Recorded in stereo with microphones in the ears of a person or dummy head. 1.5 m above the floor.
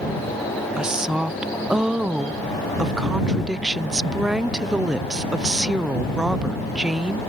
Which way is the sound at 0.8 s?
5° right (ahead or behind).